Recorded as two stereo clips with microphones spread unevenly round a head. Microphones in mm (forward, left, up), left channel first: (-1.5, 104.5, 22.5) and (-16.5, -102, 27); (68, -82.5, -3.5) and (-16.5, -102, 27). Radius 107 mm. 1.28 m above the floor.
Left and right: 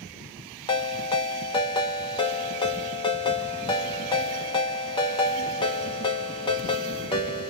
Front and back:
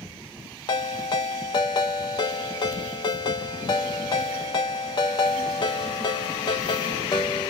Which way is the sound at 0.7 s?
35° left.